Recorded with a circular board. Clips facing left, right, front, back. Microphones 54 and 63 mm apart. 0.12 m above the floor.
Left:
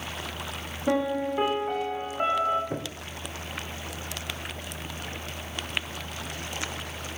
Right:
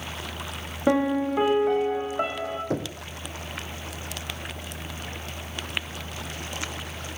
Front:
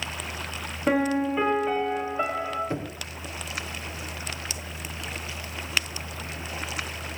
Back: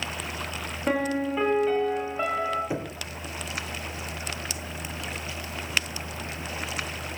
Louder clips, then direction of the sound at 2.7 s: Right 5 dB, even; 100° right.